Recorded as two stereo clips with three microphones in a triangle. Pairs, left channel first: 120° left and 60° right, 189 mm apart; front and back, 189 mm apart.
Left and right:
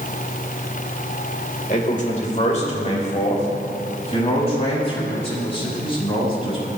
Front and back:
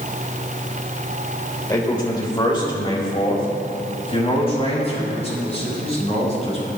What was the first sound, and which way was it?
A man speaking, 70° left.